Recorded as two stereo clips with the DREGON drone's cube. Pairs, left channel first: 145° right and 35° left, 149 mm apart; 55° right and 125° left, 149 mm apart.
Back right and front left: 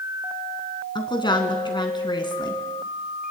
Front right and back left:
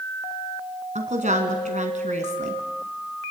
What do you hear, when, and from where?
0.9 s a woman speaking: 155° left, 3 m